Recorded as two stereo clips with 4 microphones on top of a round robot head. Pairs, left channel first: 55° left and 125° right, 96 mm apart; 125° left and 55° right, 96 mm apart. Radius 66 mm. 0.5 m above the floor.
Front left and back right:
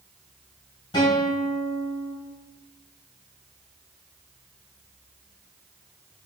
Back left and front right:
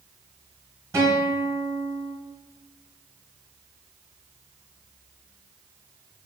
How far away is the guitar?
About 1.2 m.